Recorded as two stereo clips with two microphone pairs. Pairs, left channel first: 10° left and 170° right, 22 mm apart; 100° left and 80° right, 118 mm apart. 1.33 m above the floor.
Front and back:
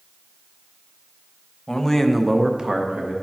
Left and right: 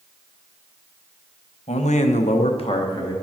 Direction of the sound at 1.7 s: 75° left.